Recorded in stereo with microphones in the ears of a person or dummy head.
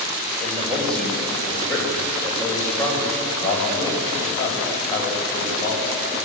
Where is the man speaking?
5° left (ahead or behind), 7 m; by 5.9 s 30° left (ahead or behind), 9.5 m.